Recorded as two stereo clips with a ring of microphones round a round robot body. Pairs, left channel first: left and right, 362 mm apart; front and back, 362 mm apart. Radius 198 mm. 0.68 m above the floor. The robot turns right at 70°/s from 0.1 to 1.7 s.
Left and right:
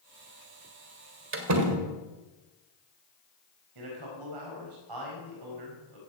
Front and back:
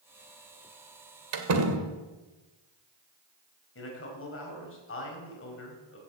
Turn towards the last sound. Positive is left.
turn(degrees=-55)